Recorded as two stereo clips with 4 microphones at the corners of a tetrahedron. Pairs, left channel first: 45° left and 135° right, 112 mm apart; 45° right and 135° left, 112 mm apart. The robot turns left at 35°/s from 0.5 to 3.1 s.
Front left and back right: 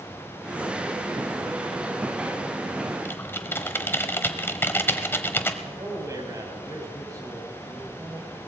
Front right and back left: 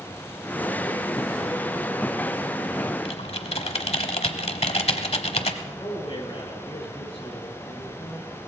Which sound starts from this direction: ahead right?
Typing on a keyboard, at 3.0 s.